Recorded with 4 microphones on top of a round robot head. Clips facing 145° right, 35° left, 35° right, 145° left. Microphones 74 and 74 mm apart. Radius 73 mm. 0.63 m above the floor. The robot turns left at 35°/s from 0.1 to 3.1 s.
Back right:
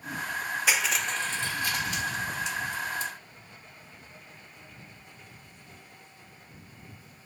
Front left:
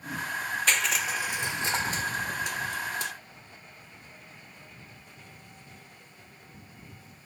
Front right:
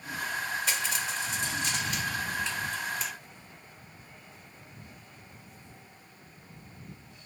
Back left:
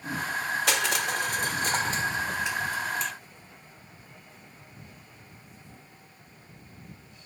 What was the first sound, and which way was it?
Crushing, 135° left.